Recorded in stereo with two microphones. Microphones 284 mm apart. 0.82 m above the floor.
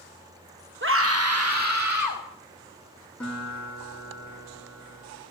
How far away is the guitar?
About 7.5 m.